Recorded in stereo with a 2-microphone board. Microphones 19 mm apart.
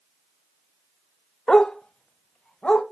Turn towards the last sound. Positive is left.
turn(degrees=60)  # may be behind; listen again after turning